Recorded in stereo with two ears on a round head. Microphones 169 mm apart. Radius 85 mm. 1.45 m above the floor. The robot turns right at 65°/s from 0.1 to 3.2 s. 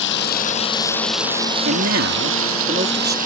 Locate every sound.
0.0 s running water: 115° left; by 3.3 s 45° right
1.6 s a man speaking: 115° right; by 3.2 s 15° right